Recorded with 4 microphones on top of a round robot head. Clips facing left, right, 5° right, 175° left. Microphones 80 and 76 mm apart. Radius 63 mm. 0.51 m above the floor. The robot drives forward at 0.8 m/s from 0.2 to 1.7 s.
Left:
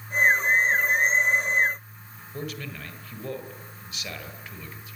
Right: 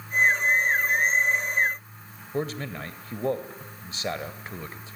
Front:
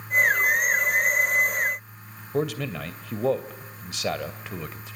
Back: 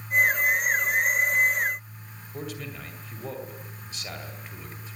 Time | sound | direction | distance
2.3 | a man speaking | 30° right | 2 m